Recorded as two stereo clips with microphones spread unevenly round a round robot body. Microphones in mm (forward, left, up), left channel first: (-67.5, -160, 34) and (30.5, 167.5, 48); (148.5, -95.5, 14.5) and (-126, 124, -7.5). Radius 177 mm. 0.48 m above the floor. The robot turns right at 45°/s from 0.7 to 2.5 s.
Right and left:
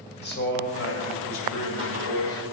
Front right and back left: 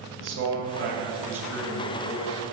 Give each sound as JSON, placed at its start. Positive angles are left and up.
{"t": 0.2, "sound": "a man speaking", "azimuth_deg": -165, "distance_m": 1.9}